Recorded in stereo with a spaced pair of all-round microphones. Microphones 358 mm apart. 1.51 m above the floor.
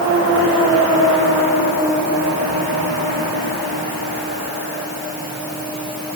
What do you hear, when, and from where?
Only background noise.